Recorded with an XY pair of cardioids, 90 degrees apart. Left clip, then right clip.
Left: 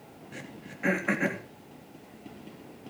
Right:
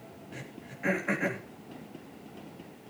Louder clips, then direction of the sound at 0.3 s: Left 2 dB; 30° left.